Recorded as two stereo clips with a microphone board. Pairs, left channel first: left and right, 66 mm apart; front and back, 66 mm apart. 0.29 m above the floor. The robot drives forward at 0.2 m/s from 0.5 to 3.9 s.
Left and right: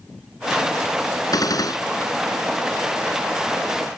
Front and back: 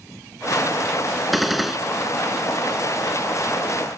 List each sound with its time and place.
1.3 s a gunshot: 90° left; by 1.8 s 95° left